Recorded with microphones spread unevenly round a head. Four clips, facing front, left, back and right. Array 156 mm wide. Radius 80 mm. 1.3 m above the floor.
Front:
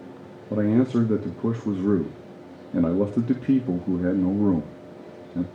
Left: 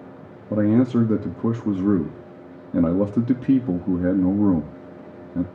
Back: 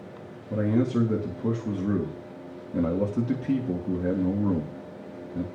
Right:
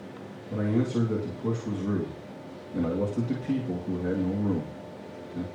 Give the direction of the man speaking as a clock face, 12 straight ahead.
10 o'clock.